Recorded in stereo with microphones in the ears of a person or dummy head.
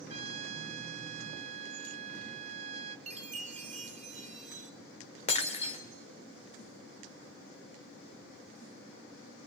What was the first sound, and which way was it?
A trumpet, 40° right (ahead or behind).